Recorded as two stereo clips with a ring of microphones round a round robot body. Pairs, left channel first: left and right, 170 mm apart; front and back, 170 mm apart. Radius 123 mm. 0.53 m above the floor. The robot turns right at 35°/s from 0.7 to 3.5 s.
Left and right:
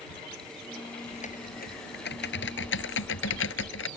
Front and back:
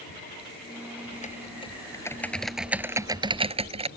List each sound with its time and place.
1.1 s typing on a keyboard: 40° left; by 3.9 s 125° left